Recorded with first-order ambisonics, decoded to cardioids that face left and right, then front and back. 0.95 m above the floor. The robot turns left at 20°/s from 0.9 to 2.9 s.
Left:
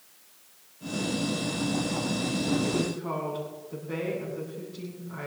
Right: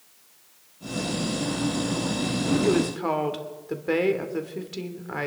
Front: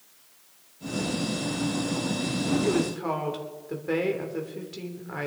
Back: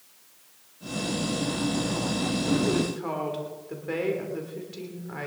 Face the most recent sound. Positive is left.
turn(degrees=-80)